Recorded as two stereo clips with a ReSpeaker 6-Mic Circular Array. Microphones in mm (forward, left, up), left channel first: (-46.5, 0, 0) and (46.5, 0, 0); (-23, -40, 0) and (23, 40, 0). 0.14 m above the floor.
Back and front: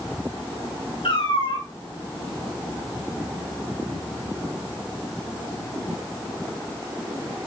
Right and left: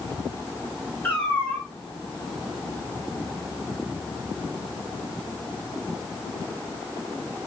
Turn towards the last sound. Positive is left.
turn(degrees=170)